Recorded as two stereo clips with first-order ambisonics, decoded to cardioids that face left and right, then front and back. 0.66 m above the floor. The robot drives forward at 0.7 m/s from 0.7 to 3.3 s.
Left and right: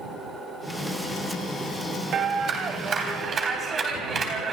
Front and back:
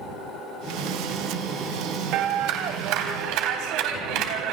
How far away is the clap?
About 3 m.